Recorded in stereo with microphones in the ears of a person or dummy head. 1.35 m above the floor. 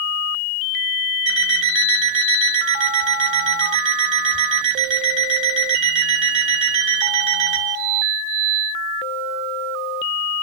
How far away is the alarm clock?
About 2.5 m.